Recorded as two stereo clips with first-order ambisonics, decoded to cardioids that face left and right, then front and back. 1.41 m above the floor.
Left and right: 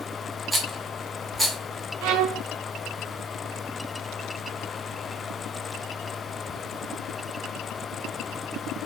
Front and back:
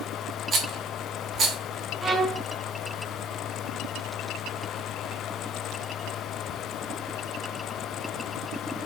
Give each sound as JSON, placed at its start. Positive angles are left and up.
{"t": 0.5, "sound": "a rattle", "azimuth_deg": 180, "distance_m": 0.9}
{"t": 2.0, "sound": "a violin", "azimuth_deg": -100, "distance_m": 0.5}